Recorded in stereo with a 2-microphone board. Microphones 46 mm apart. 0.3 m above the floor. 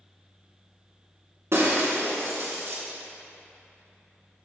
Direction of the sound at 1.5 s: 65° right (ahead or behind).